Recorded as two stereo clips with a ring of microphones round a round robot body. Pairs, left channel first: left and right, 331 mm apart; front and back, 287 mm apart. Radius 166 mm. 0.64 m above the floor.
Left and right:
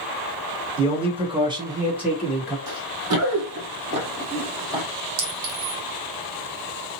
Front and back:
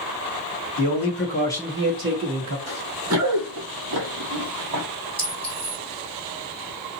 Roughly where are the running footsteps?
Behind right.